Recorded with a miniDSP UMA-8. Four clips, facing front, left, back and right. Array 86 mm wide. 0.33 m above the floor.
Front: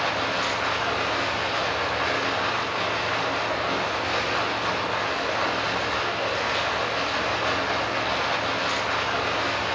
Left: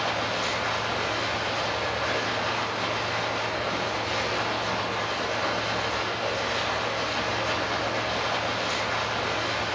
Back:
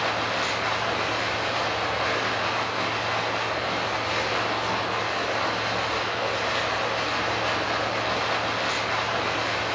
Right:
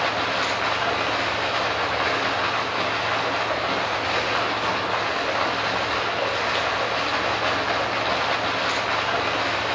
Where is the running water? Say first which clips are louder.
Right 4 dB, front 1 dB; 90° right, 5.5 m.